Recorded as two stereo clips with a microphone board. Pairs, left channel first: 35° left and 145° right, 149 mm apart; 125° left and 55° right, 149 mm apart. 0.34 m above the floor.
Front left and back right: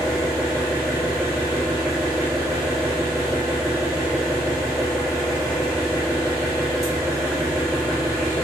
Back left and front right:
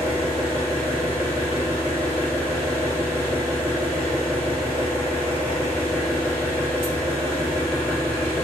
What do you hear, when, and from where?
0.0 s an engine running: 105° left, 1.3 m